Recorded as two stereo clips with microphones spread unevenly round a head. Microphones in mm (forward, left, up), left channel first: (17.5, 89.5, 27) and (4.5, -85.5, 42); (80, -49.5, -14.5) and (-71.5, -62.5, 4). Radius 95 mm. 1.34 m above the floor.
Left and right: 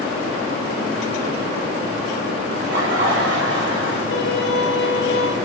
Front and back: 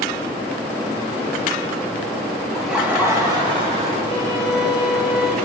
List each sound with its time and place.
2.5 s laughter: 80° right, 2.5 m; by 4.0 s 130° right, 3 m
4.1 s a violin: 60° left, 1.3 m